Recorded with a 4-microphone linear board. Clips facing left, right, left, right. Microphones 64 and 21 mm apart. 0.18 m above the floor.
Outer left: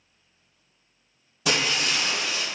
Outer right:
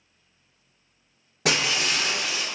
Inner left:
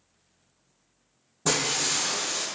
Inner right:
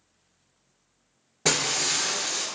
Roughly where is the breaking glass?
Right.